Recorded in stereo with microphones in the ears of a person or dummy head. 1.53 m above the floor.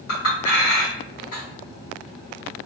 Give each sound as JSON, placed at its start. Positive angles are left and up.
{"t": 0.1, "sound": "a clink", "side_deg": 50, "distance_m": 1.1}